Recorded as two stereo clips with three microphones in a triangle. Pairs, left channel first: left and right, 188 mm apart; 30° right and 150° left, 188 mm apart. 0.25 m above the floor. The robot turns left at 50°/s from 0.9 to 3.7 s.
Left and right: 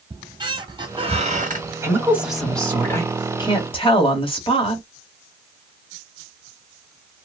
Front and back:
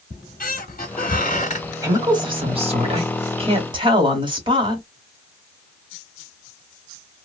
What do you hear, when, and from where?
0.1 s a squeak: 35° right, 0.9 m; by 1.7 s 75° right, 0.9 m
1.8 s a woman speaking: 150° right, 1.1 m; by 4.9 s 115° left, 1.1 m